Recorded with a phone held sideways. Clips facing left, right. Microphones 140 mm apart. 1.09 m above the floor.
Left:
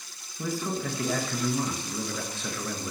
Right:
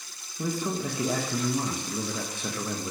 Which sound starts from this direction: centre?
A man speaking, at 0.4 s.